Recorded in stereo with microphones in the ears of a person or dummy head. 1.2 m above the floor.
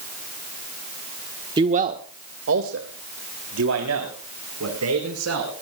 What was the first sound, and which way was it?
A man speaking, 20° right (ahead or behind).